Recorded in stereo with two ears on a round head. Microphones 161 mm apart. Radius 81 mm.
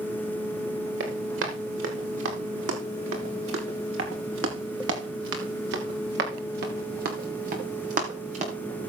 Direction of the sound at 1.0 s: 80° right.